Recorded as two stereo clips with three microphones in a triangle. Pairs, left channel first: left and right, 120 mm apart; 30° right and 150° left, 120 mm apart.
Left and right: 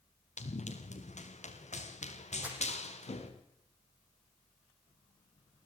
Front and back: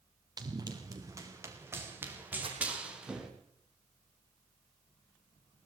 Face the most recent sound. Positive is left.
turn(degrees=-170)